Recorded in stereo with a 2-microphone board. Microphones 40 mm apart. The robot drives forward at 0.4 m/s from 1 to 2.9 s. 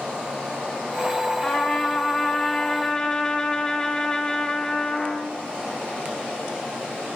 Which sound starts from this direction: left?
A trumpet, at 1.4 s.